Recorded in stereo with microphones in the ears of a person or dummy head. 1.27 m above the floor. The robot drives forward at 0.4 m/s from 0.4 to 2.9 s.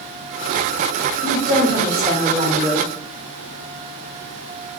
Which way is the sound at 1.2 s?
10° left (ahead or behind).